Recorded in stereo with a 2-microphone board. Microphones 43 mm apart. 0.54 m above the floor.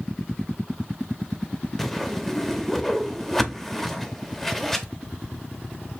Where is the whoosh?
5° left (ahead or behind), 0.6 m.